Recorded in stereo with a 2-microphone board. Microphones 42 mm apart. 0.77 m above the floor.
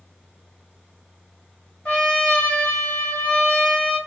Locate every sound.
1.9 s a trumpet: 30° left (ahead or behind), 1.5 m